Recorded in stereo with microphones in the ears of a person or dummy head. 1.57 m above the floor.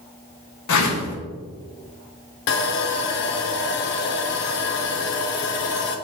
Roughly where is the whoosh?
Left.